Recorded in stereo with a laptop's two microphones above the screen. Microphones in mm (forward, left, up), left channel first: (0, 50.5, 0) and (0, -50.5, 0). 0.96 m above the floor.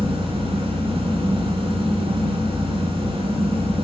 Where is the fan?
70° right (ahead or behind), 3 m.